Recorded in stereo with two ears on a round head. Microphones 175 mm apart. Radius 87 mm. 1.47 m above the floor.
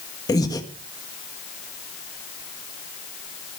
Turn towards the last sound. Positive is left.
turn(degrees=20)  # may be behind; listen again after turning